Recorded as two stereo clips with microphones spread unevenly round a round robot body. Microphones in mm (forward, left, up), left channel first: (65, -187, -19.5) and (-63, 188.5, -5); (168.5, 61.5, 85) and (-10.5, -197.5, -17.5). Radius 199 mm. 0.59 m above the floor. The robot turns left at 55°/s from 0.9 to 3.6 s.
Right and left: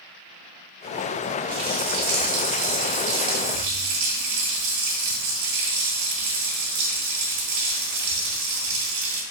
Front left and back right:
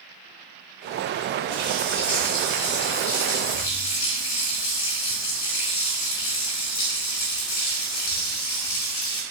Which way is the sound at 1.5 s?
170° right.